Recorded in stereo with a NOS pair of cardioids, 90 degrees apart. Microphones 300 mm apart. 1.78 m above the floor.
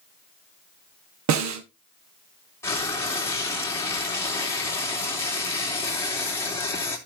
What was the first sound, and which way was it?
A snare drum, 65° right.